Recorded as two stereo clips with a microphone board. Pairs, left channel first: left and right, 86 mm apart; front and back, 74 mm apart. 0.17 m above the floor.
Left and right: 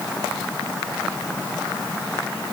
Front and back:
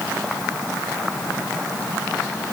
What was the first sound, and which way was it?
Only background noise.